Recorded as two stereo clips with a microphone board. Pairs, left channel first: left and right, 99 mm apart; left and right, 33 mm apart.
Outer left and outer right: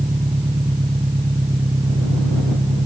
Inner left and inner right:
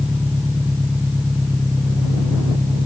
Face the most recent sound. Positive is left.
turn(degrees=-60)  # may be behind; listen again after turning